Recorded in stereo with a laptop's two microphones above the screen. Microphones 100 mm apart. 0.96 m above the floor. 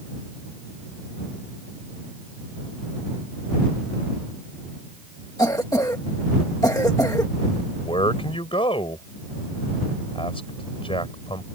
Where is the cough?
35° left (ahead or behind).